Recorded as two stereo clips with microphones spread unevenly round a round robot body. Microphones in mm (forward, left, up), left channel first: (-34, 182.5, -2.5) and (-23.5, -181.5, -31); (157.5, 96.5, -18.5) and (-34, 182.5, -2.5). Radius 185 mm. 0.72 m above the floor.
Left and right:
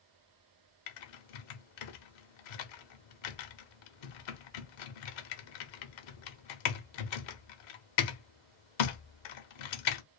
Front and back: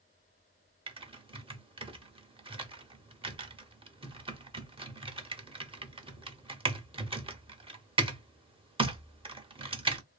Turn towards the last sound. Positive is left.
turn(degrees=90)